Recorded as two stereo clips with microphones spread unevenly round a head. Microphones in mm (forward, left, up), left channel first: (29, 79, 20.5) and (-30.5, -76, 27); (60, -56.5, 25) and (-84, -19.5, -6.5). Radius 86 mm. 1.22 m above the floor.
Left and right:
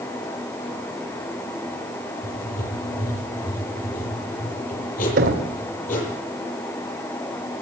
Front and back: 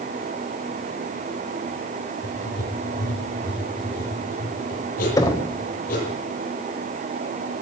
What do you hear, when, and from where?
2.2 s writing: 30° left, 9.5 m
5.2 s knocking: 80° right, 3.5 m